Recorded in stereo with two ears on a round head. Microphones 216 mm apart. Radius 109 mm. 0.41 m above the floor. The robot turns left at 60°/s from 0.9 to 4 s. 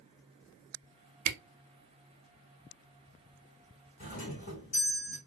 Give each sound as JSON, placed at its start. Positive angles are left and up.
{"t": 1.2, "sound": "a camera shutter", "side_deg": -80, "distance_m": 0.7}
{"t": 4.0, "sound": "a doorbell", "side_deg": 35, "distance_m": 1.9}